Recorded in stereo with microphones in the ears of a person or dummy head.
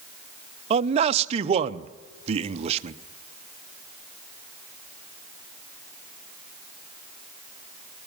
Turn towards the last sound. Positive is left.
turn(degrees=-35)  # may be behind; listen again after turning